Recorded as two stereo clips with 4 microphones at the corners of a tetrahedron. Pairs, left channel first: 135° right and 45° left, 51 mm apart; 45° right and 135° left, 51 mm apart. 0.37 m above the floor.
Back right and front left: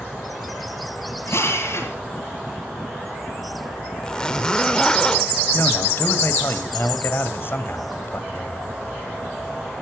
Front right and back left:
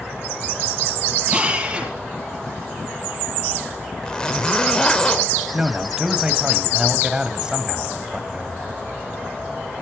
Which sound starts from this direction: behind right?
A man speaking, at 5.5 s.